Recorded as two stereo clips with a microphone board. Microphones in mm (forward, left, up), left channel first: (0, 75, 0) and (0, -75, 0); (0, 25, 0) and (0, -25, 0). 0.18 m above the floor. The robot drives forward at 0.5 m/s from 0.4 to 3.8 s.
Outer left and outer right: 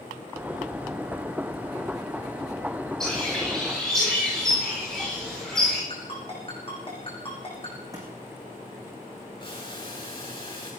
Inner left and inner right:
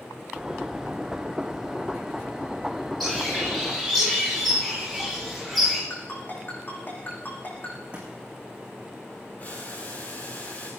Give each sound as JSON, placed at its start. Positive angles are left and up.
{"t": 3.0, "sound": "a bird", "side_deg": 5, "distance_m": 7.5}
{"t": 5.9, "sound": "a ringtone", "side_deg": 40, "distance_m": 8.0}
{"t": 7.9, "sound": "a thud", "side_deg": -20, "distance_m": 6.5}
{"t": 9.4, "sound": "boiling", "side_deg": 35, "distance_m": 9.0}